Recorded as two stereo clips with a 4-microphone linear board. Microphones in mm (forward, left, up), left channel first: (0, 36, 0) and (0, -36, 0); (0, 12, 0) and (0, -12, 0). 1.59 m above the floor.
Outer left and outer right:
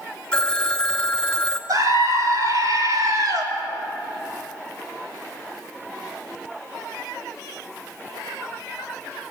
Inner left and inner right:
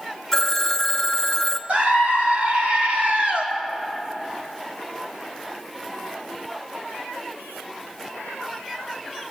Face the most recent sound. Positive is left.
turn(degrees=-55)  # may be behind; listen again after turning